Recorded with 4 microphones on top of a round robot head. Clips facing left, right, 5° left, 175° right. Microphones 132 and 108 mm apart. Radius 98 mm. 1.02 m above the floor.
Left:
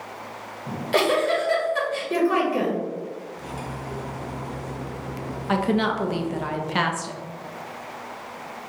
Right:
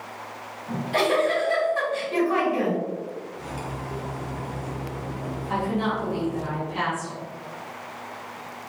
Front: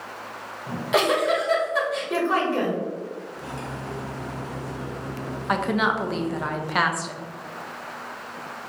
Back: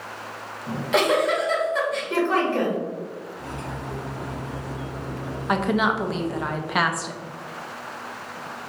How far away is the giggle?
About 1.7 m.